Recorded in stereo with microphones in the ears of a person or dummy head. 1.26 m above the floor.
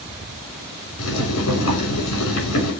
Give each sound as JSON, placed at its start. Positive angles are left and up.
{"t": 1.0, "sound": "boiling", "side_deg": 70, "distance_m": 6.5}